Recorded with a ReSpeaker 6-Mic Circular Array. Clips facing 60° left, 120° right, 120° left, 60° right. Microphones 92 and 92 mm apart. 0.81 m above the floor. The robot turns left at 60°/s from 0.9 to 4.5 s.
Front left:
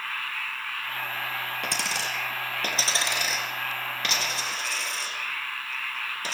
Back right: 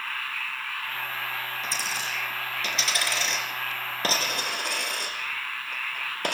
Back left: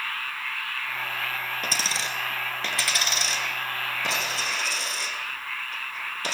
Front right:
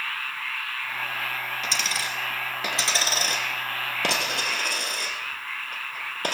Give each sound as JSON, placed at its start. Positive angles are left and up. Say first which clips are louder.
{"t": 1.6, "sound": "a dropped coin", "louder": "front left 1 dB, even", "azimuth_deg": 80, "distance_m": 3.0}